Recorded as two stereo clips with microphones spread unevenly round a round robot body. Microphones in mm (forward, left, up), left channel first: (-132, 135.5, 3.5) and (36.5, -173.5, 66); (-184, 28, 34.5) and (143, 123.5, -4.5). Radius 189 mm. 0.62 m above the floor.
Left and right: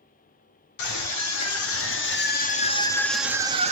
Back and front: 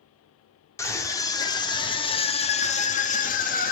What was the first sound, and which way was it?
A scream, 110° left.